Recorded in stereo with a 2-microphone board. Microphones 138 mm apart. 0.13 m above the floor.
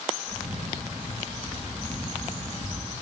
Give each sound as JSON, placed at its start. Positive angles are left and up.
{"t": 0.3, "sound": "a camera shutter", "side_deg": -45, "distance_m": 9.0}